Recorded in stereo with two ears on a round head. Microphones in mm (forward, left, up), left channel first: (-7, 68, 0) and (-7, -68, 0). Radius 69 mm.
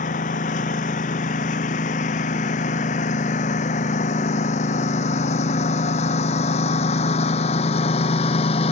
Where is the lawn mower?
50° left (ahead or behind); by 8.7 s 40° left (ahead or behind).